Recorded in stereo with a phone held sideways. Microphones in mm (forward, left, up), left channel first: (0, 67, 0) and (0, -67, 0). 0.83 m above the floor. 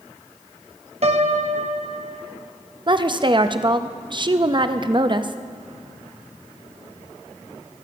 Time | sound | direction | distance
1.0 | a piano | 55° right (ahead or behind) | 0.8 m
2.9 | a woman speaking | 35° right (ahead or behind) | 0.5 m